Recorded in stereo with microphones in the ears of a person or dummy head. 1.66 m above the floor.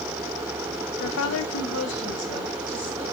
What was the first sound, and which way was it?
A woman speaking, 55° left (ahead or behind).